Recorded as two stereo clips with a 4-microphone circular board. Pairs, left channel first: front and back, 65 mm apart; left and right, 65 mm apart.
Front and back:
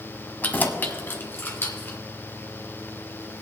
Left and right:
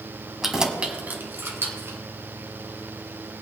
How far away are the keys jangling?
About 0.9 m.